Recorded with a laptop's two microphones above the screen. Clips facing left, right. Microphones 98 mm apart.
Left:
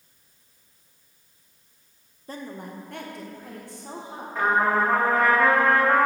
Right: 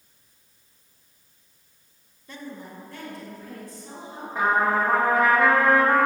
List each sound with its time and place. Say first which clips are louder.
2.3 s a woman speaking: left 2 dB; 35° left (ahead or behind), 0.6 m; by 4.2 s 65° left (ahead or behind), 2.5 m
4.3 s a trumpet: even; 15° right (ahead or behind), 1.9 m